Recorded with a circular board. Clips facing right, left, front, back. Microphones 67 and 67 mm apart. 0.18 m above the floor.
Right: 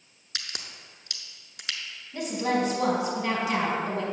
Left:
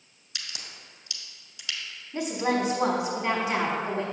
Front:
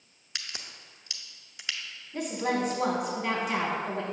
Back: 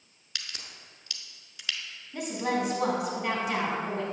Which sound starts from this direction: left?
A woman speaking, at 2.1 s.